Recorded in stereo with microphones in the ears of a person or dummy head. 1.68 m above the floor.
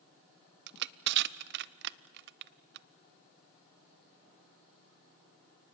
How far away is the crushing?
About 0.6 m.